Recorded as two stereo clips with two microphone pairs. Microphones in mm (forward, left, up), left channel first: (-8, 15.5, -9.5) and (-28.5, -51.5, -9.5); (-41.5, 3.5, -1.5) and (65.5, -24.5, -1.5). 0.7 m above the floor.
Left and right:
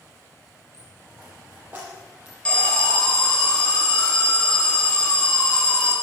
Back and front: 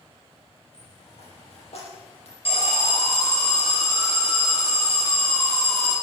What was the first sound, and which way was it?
A dropped coin, 170° right.